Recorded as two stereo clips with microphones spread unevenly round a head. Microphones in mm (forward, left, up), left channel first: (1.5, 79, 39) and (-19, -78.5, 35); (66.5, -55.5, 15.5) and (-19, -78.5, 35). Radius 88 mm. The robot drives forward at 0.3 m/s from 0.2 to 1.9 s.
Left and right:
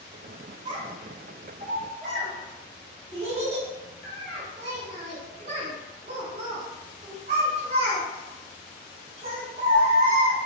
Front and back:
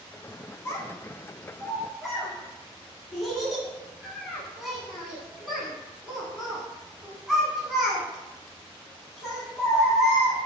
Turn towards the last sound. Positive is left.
turn(degrees=-100)